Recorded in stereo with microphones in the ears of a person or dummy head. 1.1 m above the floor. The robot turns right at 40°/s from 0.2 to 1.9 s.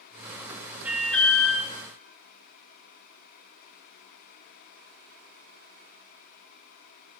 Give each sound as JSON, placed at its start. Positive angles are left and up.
{"t": 0.8, "sound": "an alarm", "side_deg": -5, "distance_m": 4.5}